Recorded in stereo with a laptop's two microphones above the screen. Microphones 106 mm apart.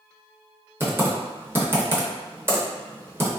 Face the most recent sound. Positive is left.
turn(degrees=-20)  # may be behind; listen again after turning